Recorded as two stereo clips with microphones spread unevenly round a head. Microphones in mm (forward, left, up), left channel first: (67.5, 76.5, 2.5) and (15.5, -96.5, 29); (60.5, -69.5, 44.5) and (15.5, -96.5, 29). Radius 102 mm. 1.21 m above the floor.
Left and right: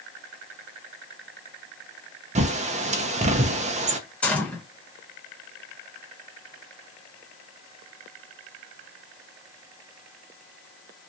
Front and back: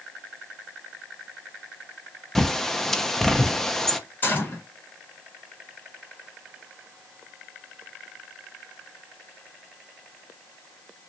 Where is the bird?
55° right, 0.5 m.